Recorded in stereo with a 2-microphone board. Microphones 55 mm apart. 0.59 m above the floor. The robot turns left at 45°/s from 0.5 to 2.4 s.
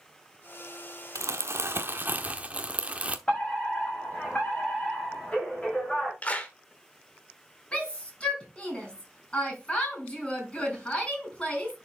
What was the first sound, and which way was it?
Crumpling, 95° right.